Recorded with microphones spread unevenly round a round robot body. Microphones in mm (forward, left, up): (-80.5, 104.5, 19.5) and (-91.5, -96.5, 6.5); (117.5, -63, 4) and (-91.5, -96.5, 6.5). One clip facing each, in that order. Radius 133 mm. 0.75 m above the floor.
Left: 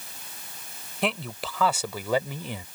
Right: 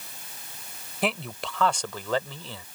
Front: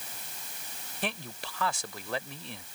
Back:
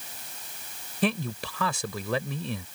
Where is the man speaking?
Straight behind; by 2.6 s 160° left.